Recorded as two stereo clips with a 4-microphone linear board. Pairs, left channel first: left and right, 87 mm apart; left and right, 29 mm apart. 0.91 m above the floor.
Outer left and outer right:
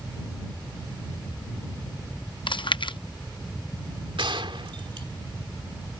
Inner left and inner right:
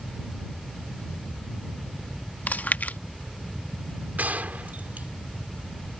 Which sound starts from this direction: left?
Chewing, at 2.5 s.